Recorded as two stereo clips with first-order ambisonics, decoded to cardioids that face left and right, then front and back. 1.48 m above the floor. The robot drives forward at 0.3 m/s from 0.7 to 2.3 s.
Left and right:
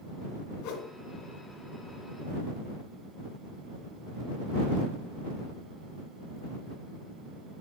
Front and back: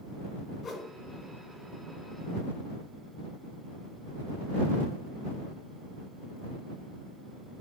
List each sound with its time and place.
0.6 s a whoosh: 65° left, 1.3 m; by 0.9 s 70° left, 1.3 m